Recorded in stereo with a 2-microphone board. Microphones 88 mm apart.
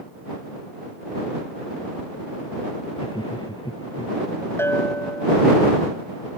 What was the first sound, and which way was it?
Laughter, 70° left (ahead or behind).